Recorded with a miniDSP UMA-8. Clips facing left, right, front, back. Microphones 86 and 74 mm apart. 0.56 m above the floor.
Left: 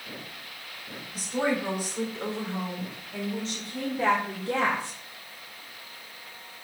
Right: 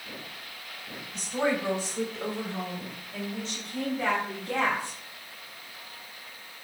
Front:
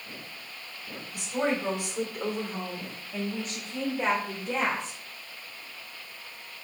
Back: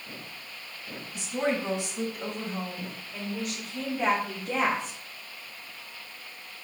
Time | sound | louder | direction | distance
1.1 | a woman speaking | even, even | 5° left | 2 m